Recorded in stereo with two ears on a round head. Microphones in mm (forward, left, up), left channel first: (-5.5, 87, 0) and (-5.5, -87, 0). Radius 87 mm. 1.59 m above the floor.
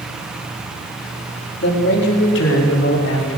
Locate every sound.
1.6 s a man speaking: 55° left (ahead or behind), 4.5 m; by 3.4 s 70° left (ahead or behind), 5.5 m